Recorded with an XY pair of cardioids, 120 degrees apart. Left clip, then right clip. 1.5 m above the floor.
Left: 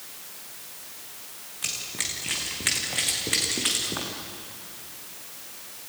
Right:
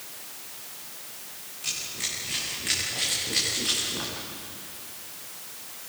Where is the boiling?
I don't hear boiling.